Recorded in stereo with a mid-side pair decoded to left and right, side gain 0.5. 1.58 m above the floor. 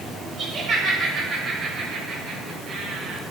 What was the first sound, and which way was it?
Laughter, 65° right.